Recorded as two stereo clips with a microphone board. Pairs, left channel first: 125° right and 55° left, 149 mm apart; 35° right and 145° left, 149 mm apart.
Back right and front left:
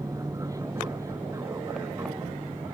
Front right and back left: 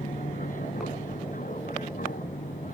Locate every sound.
0.0 s an aircraft: 10° right; by 2.7 s 15° right